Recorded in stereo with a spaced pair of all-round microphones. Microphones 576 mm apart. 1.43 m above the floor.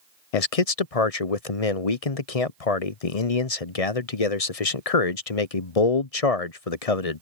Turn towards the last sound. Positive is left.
turn(degrees=80)